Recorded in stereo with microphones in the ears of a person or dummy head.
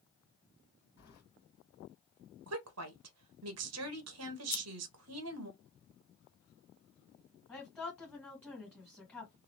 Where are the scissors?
50° left (ahead or behind), 0.7 m.